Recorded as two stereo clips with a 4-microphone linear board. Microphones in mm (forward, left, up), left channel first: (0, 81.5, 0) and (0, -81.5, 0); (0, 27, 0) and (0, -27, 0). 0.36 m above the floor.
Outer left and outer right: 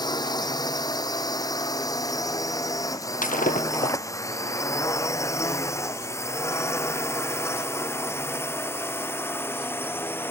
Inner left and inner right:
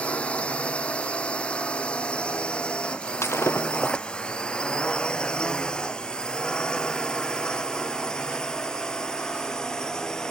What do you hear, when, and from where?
0.0 s a drone: 25° left (ahead or behind); by 10.3 s 10° left (ahead or behind)
3.2 s breaking glass: 55° left (ahead or behind)